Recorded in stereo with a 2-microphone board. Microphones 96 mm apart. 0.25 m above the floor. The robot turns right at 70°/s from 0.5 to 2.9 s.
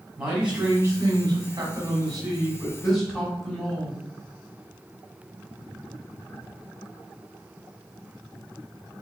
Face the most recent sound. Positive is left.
turn(degrees=0)